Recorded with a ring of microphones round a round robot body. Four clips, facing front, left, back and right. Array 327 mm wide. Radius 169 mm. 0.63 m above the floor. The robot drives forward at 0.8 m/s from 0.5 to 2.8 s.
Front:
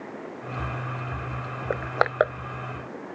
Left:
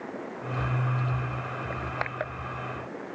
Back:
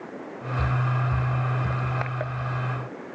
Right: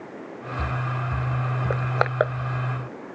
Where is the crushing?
40° right; by 2.3 s 45° right.